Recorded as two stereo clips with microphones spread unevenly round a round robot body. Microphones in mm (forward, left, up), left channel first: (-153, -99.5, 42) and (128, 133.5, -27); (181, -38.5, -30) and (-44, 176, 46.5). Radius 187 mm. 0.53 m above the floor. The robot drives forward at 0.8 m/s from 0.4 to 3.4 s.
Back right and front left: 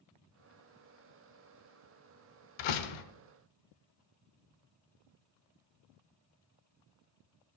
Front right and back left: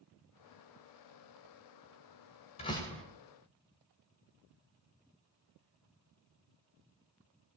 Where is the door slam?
115° right, 1.0 m; by 3.0 s 130° right, 1.2 m.